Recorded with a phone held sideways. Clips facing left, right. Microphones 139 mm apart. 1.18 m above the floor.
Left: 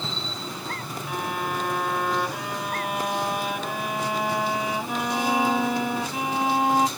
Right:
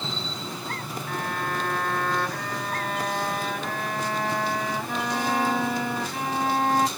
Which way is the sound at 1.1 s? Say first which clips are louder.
Left 1 dB; 10° left (ahead or behind).